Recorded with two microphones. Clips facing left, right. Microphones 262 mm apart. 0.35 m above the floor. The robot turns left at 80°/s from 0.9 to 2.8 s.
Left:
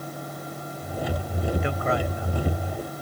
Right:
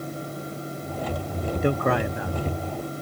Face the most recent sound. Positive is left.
turn(degrees=-45)  # may be behind; listen again after turning